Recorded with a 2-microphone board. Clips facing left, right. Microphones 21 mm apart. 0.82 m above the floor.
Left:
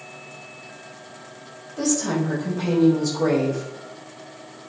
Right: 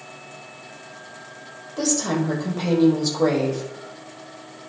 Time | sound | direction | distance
1.8 | a woman speaking | 30° right (ahead or behind) | 4 m